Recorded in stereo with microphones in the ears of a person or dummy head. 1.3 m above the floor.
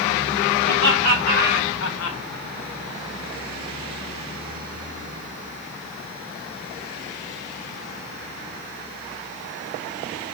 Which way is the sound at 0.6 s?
40° left (ahead or behind).